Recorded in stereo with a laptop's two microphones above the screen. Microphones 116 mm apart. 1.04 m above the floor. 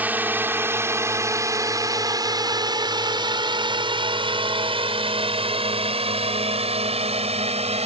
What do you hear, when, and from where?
0.0 s a drone: 15° right (ahead or behind); by 7.9 s 60° right (ahead or behind)